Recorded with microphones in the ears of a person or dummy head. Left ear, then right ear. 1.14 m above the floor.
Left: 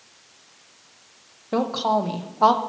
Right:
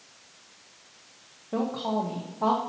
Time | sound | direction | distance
1.5 | a woman speaking | 85° left | 0.7 m